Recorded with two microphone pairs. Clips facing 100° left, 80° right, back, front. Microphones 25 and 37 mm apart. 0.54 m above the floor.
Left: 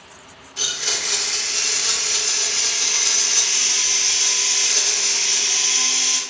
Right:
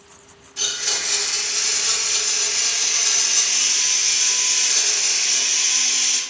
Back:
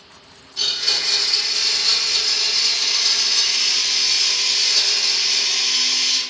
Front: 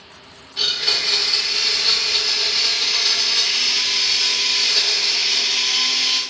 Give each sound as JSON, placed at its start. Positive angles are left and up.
{"t": 0.6, "sound": "a blender", "azimuth_deg": 45, "distance_m": 0.6}